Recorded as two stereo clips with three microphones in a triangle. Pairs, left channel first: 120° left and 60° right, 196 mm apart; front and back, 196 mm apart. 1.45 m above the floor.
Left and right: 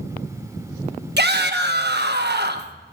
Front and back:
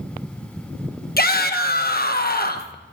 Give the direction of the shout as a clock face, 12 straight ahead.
1 o'clock.